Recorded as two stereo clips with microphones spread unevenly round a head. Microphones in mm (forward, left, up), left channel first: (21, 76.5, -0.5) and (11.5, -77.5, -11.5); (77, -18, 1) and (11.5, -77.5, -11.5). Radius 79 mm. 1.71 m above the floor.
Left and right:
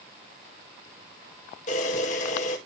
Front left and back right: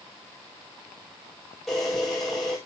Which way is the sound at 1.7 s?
125° left.